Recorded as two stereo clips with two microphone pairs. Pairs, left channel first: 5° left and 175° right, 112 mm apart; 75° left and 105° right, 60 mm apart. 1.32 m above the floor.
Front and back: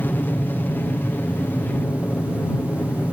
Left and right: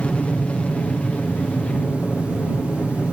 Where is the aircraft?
45° left.